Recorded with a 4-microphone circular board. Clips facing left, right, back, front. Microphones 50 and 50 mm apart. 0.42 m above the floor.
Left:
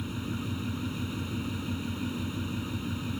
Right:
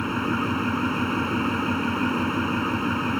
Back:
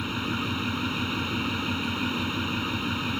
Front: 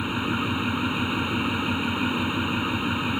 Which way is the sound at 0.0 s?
75° right.